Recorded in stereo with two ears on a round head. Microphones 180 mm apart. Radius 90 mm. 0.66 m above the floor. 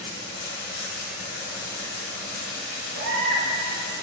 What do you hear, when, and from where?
0.0 s running water: 50° left (ahead or behind), 1.0 m
2.9 s a baby crying: 85° right, 1.9 m